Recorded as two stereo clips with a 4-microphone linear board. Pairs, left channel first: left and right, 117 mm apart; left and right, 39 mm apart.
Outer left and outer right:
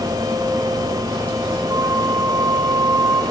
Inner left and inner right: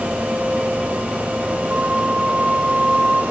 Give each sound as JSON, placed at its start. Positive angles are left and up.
{"t": 1.7, "sound": "a flute", "side_deg": -30, "distance_m": 2.5}